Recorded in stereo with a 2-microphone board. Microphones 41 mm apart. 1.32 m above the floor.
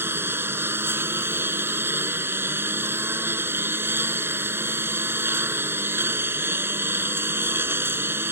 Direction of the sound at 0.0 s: 70° right (ahead or behind).